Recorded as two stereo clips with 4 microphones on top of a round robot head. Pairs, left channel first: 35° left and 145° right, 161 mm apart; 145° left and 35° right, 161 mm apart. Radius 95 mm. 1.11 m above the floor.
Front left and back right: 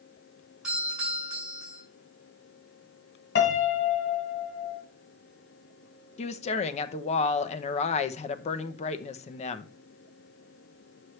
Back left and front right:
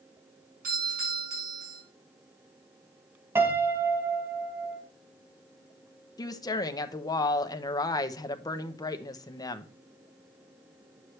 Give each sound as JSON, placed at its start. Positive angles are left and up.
{"t": 0.6, "sound": "a doorbell", "azimuth_deg": -60, "distance_m": 6.5}
{"t": 3.4, "sound": "a piano", "azimuth_deg": 40, "distance_m": 1.7}
{"t": 6.2, "sound": "a woman speaking", "azimuth_deg": 80, "distance_m": 0.8}